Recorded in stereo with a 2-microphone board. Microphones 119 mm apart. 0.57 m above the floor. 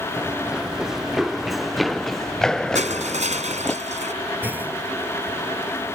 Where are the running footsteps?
10° right (ahead or behind); by 3.8 s 10° left (ahead or behind).